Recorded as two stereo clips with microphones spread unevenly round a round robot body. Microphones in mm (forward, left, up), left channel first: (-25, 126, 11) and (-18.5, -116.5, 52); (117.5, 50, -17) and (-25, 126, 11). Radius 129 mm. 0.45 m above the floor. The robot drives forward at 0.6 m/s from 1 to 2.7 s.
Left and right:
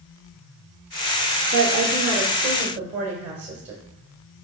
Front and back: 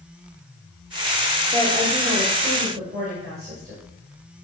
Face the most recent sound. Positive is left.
turn(degrees=-155)